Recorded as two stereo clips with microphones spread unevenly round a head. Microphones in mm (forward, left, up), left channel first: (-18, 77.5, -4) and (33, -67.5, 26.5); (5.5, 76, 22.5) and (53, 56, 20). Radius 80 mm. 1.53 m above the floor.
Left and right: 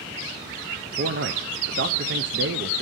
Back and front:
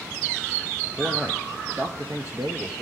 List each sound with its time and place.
1.0 s a man speaking: 90° right, 0.5 m